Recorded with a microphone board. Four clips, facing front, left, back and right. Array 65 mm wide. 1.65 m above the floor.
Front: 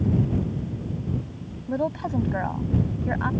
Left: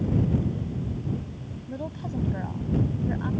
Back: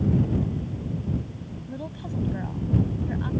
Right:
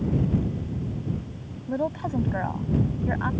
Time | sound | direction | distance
1.7 | a woman speaking | 40° right | ?